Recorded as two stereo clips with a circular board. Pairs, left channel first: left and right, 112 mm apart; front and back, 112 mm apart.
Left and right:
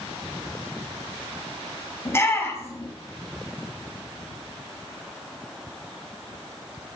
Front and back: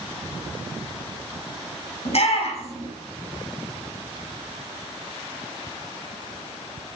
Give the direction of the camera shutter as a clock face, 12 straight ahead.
No camera shutter in this recording.